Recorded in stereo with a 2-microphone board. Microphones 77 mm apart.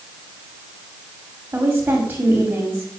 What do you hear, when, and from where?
1.5 s a woman speaking: 25° right (ahead or behind), 6 m